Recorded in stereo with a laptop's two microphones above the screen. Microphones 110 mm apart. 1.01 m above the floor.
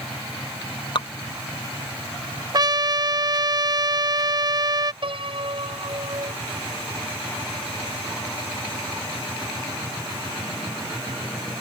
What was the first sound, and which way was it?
Dripping, 50° left (ahead or behind).